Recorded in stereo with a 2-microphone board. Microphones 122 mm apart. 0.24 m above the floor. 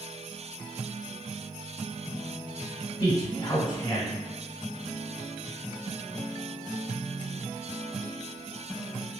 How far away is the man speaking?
About 1.2 m.